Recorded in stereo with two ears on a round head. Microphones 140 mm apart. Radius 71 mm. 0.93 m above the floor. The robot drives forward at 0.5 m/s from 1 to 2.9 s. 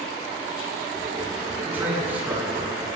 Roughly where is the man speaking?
Centre.